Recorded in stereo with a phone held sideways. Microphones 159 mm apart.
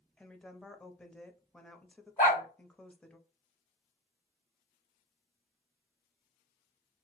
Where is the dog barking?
65° left (ahead or behind), 3 m.